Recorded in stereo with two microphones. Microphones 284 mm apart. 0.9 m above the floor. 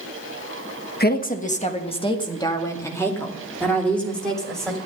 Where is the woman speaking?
35° left (ahead or behind), 1.2 m; by 4.8 s centre (ahead or behind), 3.5 m.